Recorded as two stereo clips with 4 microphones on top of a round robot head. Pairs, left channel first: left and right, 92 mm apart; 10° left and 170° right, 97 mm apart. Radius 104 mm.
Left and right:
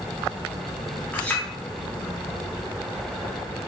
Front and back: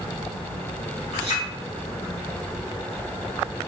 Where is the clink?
15° left, 1.8 m.